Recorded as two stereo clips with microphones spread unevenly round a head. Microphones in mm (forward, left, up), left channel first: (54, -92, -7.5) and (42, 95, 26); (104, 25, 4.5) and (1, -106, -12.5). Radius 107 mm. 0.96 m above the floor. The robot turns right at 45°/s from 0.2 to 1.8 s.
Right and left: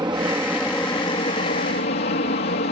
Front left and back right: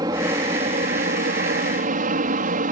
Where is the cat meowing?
No cat meowing in this recording.